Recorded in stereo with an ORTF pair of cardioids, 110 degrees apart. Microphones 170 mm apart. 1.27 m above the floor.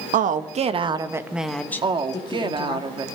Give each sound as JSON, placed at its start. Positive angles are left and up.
{"t": 0.1, "sound": "a woman speaking", "azimuth_deg": -55, "distance_m": 1.5}
{"t": 1.8, "sound": "a woman speaking", "azimuth_deg": -30, "distance_m": 2.0}